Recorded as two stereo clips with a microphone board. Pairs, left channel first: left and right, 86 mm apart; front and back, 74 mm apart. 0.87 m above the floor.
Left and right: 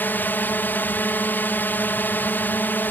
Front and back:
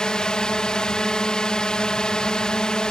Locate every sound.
0.0 s a drone: 65° left